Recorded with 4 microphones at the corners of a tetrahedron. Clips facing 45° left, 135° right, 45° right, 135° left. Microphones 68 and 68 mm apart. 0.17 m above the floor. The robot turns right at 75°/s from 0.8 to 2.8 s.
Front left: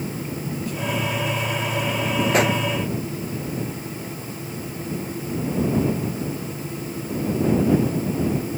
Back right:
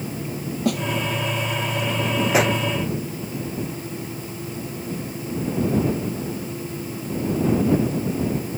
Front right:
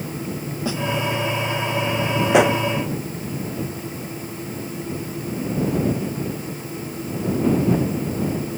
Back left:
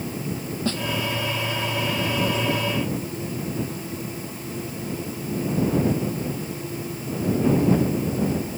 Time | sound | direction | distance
0.7 | a snare drum | 125° right | ?
2.3 | a pop | 55° right | ?